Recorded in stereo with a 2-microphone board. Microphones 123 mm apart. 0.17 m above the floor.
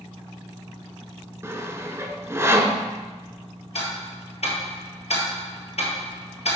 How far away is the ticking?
About 1.7 m.